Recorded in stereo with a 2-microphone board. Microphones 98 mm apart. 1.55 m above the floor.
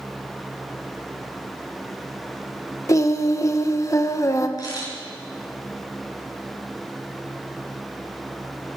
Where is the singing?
30° left (ahead or behind), 1.1 m.